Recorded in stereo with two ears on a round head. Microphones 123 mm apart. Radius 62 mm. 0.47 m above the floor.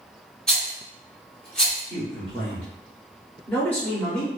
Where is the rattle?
5° left (ahead or behind), 1.3 m.